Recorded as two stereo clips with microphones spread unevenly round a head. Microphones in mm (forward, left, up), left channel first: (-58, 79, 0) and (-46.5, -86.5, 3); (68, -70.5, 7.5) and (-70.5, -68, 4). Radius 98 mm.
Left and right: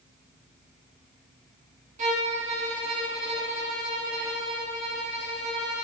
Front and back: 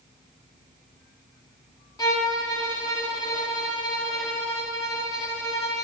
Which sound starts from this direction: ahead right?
A violin, at 2.0 s.